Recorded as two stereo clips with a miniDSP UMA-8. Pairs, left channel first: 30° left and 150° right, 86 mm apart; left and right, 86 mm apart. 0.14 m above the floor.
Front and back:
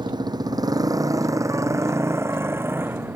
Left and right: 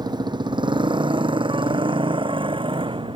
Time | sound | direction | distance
0.0 | a motorcycle | 120° right | ?